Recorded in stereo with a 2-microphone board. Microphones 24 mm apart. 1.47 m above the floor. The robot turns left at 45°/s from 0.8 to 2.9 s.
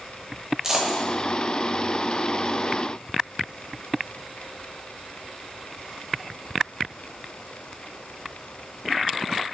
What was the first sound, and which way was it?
A dropped coin, 25° right (ahead or behind).